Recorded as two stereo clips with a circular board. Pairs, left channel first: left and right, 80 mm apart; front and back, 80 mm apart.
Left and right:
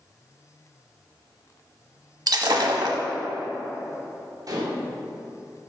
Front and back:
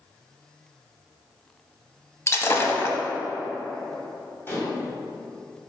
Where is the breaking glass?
60° right, 0.8 m.